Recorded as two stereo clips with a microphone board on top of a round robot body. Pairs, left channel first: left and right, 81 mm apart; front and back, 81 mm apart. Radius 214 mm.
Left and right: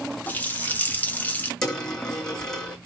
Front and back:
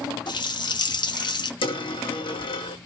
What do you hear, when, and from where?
0.3 s a running tap: 20° left, 1.4 m
1.6 s a dropped coin: 10° left, 2 m